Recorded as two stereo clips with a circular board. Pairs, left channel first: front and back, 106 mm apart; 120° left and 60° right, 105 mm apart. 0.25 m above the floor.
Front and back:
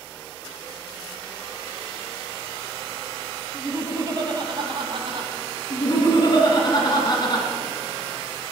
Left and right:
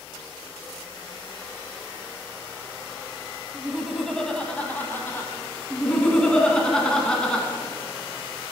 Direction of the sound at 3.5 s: 135° right.